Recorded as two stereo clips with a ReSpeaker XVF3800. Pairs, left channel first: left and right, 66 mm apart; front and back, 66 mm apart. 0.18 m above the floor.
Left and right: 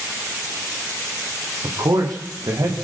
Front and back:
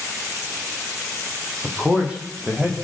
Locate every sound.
1.6 s a man speaking: 110° right, 7.5 m; by 2.7 s 105° right, 7.5 m